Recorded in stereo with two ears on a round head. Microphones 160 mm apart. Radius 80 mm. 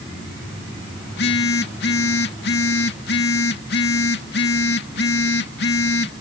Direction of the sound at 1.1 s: 60° left (ahead or behind).